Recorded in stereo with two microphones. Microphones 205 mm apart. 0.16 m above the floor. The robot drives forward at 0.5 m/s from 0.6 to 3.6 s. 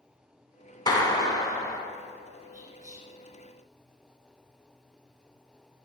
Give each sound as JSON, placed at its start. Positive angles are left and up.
{"t": 0.9, "sound": "a clap", "side_deg": 20, "distance_m": 1.1}
{"t": 2.5, "sound": "whispering", "side_deg": -40, "distance_m": 2.5}